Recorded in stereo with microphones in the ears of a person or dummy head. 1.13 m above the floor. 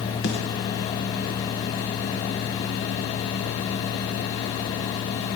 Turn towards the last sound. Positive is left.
turn(degrees=50)  # may be behind; listen again after turning